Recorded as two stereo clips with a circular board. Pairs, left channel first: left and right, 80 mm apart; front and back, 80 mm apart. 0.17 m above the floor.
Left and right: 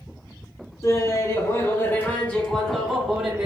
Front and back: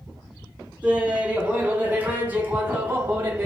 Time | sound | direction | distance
0.8 | laughter | 115° left | 1.8 m